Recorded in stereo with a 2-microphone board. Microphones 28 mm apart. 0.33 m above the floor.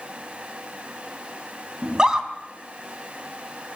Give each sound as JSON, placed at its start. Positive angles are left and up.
{"t": 1.8, "sound": "a scream", "side_deg": -20, "distance_m": 3.0}